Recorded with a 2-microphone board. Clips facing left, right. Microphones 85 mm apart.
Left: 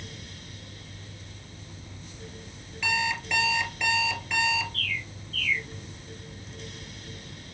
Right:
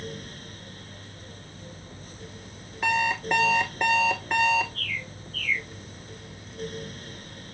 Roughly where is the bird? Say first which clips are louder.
Even; centre.